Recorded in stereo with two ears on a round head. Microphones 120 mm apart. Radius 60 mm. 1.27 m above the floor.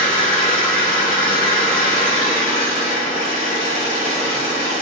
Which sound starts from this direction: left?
An engine running, at 0.0 s.